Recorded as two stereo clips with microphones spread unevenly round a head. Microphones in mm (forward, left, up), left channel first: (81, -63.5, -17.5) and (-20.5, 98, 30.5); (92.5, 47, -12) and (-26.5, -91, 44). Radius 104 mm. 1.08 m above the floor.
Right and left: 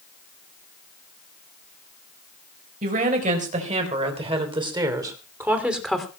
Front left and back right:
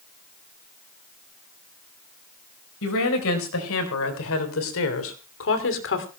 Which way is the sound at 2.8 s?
70° left.